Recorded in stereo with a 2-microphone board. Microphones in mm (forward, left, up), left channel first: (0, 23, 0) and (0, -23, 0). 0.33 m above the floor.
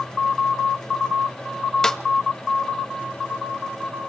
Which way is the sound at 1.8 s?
10° left (ahead or behind).